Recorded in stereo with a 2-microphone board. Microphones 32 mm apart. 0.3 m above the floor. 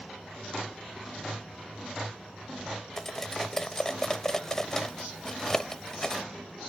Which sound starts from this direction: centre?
Cutlery clinking, at 3.0 s.